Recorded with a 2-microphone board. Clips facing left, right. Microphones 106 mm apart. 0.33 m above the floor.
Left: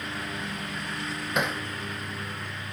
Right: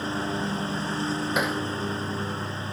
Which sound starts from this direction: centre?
Hammering, at 1.4 s.